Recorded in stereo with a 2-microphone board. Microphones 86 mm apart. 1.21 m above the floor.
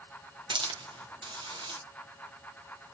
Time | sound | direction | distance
0.5 | a hiss | 75° right (ahead or behind) | 1.1 m